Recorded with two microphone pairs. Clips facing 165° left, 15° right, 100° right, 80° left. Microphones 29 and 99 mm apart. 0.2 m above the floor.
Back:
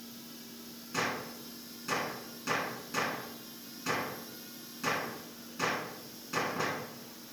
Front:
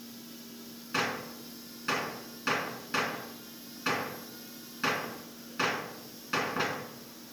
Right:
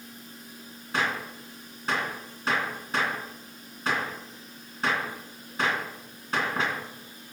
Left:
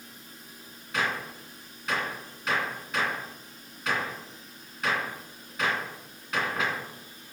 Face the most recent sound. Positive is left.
turn(degrees=-50)